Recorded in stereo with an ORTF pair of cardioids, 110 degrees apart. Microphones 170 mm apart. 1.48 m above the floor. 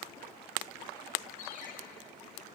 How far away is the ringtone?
About 1.9 m.